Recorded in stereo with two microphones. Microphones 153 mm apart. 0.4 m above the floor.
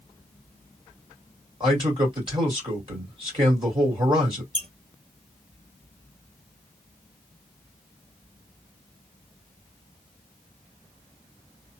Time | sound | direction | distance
1.6 | a man speaking | 35° right (ahead or behind) | 2 m
4.5 | a squeak | 55° left (ahead or behind) | 1.1 m